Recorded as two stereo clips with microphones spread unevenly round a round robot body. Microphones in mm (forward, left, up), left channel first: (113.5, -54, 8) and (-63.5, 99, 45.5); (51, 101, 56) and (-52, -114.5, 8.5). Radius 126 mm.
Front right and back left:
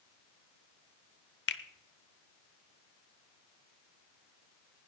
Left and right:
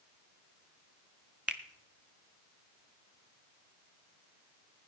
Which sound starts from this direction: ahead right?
A finger snap, at 1.5 s.